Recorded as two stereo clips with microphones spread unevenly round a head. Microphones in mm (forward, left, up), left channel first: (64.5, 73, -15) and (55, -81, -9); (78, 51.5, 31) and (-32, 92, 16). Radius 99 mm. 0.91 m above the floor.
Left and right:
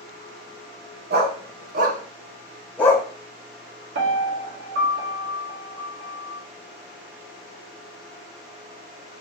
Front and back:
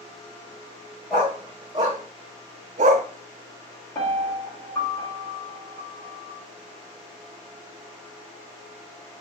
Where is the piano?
95° right, 1.7 m.